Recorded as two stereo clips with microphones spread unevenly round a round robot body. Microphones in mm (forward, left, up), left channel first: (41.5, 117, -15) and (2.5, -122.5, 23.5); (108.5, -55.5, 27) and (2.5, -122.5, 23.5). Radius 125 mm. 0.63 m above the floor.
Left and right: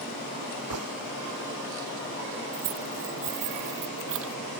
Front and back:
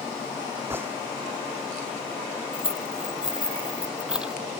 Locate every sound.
0.7 s a gunshot: 75° right
2.5 s keys jangling: 65° right